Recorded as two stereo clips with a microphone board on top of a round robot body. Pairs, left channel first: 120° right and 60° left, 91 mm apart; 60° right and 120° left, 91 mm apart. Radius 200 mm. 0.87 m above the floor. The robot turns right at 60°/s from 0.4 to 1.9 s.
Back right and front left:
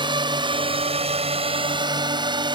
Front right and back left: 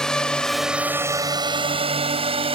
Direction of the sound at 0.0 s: 25° left.